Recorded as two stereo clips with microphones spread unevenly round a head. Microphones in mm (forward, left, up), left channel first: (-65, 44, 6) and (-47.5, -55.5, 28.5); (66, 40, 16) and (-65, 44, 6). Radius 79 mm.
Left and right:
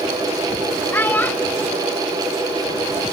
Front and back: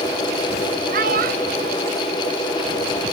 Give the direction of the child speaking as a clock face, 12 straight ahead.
6 o'clock.